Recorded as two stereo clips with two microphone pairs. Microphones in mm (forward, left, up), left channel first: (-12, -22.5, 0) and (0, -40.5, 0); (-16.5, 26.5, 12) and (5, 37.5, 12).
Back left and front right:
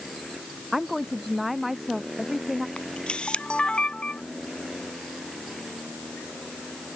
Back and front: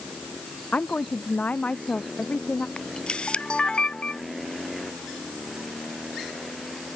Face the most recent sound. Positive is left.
turn(degrees=160)